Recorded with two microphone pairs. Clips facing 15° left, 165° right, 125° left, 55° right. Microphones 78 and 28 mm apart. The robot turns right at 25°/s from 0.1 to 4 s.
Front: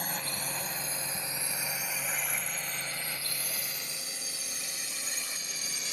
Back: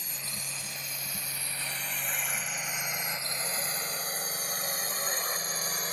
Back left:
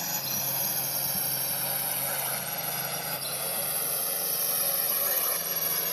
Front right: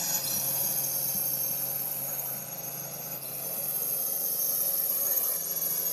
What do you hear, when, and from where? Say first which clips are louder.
0.0 s a drone: front 7 dB, back left 1 dB; 50° left; by 5.9 s 155° left